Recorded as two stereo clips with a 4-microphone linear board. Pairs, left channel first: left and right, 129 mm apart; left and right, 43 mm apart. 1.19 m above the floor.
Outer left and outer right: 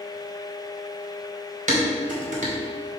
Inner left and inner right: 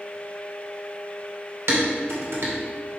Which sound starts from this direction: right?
Dishes clattering, at 1.7 s.